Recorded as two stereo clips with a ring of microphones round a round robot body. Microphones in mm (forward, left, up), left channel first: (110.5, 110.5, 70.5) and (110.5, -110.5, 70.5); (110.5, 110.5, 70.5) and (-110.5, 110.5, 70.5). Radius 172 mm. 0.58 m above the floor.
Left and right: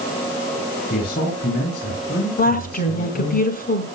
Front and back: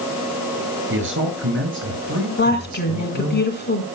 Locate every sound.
0.9 s a man speaking: 150° left, 9.5 m; by 3.4 s 140° left, 10 m
2.4 s a woman speaking: 40° left, 5.5 m